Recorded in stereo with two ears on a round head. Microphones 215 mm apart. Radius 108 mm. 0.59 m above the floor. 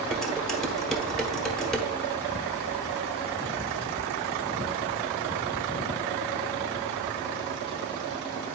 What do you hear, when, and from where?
0.1 s dishes clattering: centre (ahead or behind), 1.1 m